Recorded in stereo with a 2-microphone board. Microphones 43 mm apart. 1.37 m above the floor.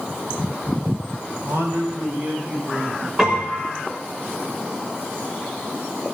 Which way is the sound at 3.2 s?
15° right (ahead or behind).